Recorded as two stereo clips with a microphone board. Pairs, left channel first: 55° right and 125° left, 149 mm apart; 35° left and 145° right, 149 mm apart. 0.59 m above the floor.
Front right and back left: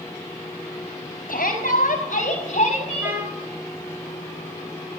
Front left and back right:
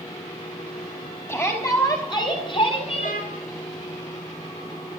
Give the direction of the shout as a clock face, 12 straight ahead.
1 o'clock.